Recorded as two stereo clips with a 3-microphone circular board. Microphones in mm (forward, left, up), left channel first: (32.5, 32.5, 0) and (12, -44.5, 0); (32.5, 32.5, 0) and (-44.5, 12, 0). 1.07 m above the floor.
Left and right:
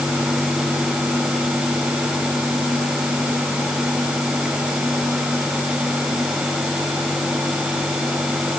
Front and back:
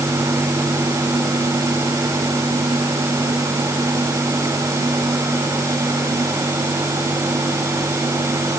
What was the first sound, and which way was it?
Only background noise.